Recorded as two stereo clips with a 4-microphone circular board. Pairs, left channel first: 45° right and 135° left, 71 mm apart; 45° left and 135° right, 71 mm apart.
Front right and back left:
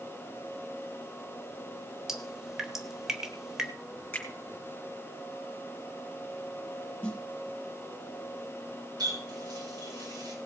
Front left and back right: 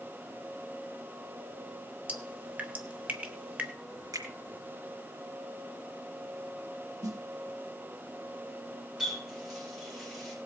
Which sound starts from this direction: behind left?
A running tap, at 9.0 s.